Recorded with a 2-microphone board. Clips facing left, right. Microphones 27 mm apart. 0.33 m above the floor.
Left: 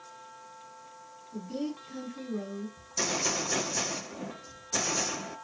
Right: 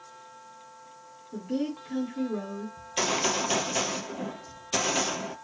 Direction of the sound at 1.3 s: 55° right (ahead or behind).